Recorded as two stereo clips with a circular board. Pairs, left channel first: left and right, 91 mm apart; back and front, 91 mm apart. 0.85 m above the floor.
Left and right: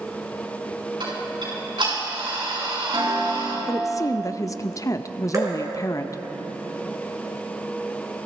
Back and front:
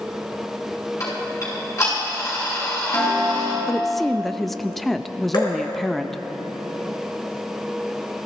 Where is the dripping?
145° right, 3.5 m.